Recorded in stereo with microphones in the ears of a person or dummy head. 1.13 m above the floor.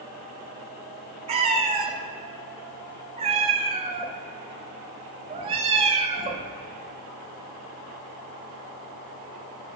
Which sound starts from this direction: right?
A cat meowing, at 1.3 s.